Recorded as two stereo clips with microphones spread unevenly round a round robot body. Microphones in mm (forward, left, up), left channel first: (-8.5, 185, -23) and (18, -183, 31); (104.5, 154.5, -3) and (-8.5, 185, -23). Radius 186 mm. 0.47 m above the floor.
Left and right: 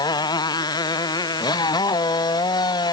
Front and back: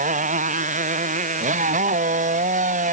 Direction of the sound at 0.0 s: 175° left.